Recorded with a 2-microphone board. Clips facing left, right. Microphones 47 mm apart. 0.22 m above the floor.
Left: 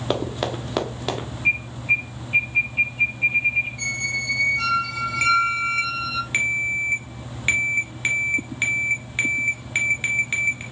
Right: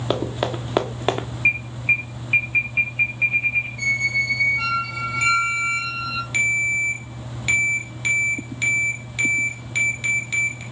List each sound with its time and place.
0.1 s running footsteps: 5° right (ahead or behind), 1.6 m; by 1.3 s 40° right (ahead or behind), 1.4 m
1.4 s an alarm: 55° right (ahead or behind), 3.5 m
3.8 s a squeak: 10° right (ahead or behind), 1.6 m
5.2 s a ringtone: 30° left (ahead or behind), 2 m